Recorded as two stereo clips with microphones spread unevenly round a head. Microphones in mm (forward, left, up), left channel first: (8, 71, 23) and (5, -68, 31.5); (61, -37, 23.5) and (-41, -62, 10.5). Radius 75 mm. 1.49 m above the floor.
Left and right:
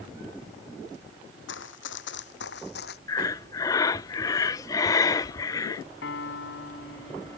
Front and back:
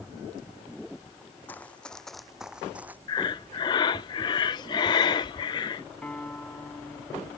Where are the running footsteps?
90° left; by 3.0 s 110° left.